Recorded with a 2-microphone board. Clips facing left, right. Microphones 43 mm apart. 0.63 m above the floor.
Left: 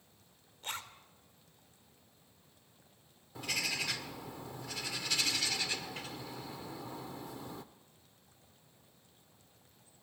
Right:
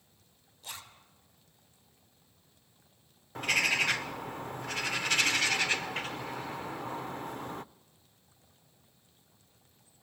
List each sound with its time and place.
0.6 s a zipper: 50° left (ahead or behind), 2.5 m
3.4 s a bird: 50° right (ahead or behind), 0.6 m